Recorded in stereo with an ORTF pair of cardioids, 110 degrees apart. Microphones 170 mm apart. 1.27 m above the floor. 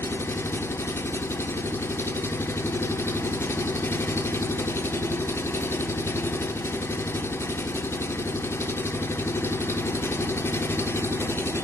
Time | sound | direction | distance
0.0 | an engine running | 15° left | 0.7 m